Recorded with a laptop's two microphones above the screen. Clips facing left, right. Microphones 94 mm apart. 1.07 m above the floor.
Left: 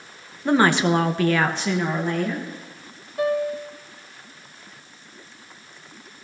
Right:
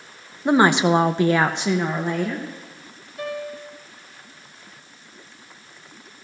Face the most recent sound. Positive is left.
turn(degrees=50)  # may be behind; listen again after turning